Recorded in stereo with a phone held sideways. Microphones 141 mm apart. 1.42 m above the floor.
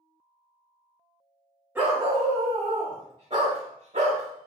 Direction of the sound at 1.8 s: 15° right (ahead or behind).